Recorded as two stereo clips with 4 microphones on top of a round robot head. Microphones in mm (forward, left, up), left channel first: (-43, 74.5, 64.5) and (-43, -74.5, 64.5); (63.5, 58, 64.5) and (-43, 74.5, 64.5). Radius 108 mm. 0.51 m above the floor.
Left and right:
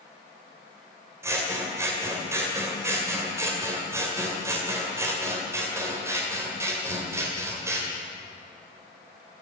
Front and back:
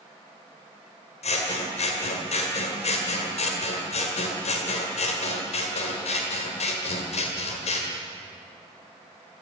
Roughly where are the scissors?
Ahead.